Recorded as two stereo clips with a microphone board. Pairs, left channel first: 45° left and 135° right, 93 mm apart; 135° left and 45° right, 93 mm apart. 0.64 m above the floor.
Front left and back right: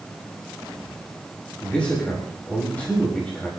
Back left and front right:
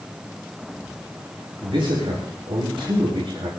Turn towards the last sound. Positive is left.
turn(degrees=-30)